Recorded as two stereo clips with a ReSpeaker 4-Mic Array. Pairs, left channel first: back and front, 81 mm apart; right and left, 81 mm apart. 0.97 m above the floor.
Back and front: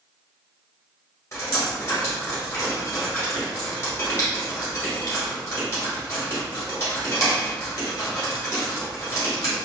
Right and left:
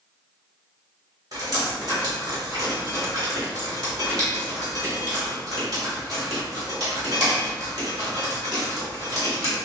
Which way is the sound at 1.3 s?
130° left.